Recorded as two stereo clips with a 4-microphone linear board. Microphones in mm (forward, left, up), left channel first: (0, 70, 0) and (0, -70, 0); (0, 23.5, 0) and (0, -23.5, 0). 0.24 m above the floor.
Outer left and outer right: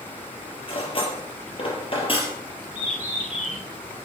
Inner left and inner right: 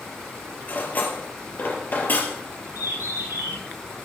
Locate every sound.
0.7 s cutlery clinking: 40° left (ahead or behind), 3.5 m
2.8 s a bird: 65° right (ahead or behind), 9 m